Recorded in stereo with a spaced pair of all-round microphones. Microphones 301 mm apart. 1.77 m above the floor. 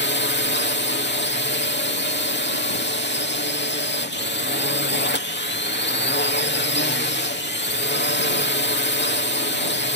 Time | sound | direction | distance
0.0 | a drone | 35° left (ahead or behind) | ?